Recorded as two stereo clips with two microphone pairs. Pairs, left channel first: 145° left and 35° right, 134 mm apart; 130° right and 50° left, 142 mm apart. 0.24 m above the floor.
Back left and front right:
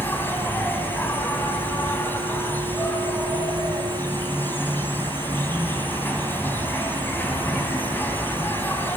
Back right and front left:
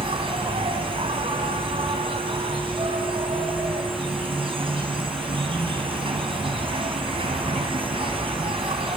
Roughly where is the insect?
Left.